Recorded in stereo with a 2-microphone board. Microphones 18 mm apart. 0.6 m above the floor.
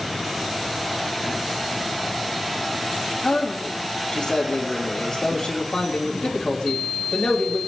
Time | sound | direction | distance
3.2 | a man speaking | 80° left | 3 m